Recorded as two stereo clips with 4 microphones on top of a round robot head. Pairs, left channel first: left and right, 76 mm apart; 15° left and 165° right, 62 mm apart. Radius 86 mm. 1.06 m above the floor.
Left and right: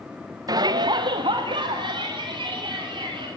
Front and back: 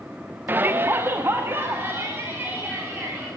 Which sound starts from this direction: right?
A shout, at 0.5 s.